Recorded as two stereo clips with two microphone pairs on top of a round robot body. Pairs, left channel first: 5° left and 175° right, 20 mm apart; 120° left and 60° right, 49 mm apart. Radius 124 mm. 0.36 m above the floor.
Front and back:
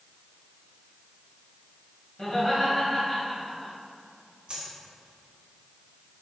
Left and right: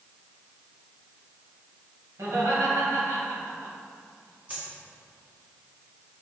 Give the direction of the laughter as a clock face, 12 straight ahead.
2 o'clock.